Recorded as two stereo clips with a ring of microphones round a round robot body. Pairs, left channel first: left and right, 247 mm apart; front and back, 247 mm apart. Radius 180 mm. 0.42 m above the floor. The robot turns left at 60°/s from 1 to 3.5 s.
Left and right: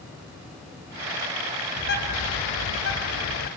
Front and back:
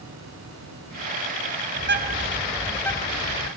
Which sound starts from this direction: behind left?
A bird, at 1.8 s.